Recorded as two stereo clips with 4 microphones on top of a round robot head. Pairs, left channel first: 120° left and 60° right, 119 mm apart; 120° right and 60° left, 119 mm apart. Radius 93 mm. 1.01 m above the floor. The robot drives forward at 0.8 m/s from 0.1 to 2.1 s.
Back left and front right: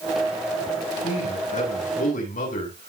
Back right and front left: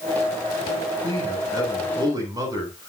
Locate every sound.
1.0 s a man speaking: 115° left, 9.5 m; by 2.9 s 120° left, 9.5 m